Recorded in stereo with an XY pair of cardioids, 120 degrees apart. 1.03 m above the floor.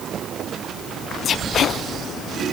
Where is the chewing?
No chewing in this recording.